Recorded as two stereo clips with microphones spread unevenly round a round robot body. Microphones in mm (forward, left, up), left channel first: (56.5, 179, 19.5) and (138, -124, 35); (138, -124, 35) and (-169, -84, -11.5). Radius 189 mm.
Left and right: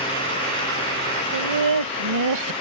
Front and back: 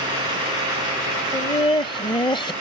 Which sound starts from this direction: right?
Laughter, at 1.3 s.